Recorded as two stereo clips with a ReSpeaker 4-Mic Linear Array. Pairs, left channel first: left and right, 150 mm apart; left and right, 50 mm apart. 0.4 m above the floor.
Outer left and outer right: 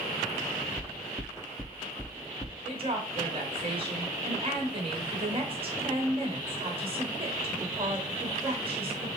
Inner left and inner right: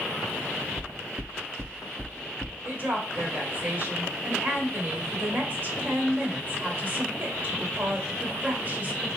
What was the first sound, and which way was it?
Knocking, 25° left (ahead or behind).